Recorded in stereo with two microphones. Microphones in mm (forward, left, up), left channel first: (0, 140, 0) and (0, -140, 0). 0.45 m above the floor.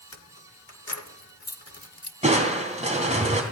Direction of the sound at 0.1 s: 60° left (ahead or behind).